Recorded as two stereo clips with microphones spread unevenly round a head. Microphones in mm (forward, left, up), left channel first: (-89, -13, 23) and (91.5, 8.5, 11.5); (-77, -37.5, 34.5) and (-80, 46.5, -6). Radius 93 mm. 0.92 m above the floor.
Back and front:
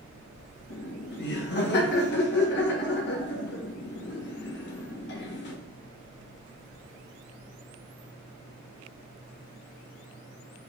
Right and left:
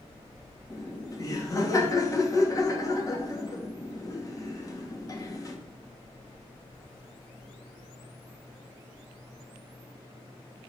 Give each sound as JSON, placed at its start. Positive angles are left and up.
{"t": 0.7, "sound": "laughter", "azimuth_deg": -150, "distance_m": 1.5}